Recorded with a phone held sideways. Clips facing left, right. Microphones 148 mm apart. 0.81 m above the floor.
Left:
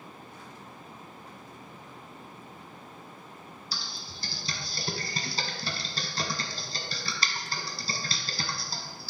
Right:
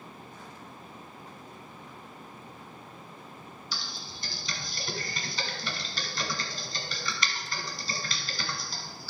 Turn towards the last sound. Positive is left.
turn(degrees=35)  # may be behind; listen again after turning